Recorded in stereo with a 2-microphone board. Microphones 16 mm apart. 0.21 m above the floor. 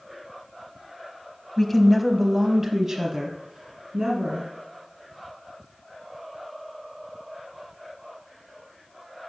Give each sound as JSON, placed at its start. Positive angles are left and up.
{"t": 1.6, "sound": "a woman speaking", "side_deg": 15, "distance_m": 1.0}